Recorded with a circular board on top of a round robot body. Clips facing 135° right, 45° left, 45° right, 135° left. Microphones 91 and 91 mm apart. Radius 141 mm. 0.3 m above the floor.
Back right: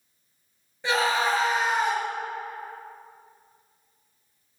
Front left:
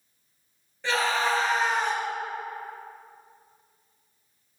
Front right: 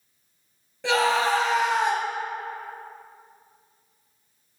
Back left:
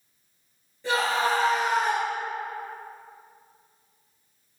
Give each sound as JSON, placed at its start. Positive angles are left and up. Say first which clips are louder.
{"t": 0.8, "sound": "a scream", "louder": "back right 2 dB, front right 3 dB", "azimuth_deg": -60, "distance_m": 2.5}